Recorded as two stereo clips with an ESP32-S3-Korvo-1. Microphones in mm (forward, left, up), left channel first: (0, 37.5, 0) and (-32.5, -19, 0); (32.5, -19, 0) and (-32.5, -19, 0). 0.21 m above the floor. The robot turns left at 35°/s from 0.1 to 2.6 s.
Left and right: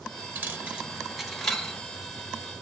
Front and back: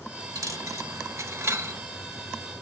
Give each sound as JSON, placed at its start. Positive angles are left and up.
{"t": 0.3, "sound": "a dropped coin", "azimuth_deg": 180, "distance_m": 0.7}